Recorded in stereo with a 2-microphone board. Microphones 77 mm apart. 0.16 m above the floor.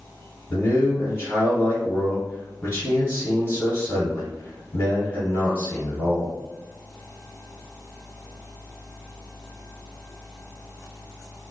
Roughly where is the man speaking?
Left.